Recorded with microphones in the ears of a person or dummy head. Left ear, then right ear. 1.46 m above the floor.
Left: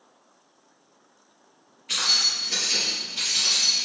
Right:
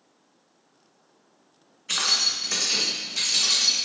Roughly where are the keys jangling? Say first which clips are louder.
Left 1 dB; right.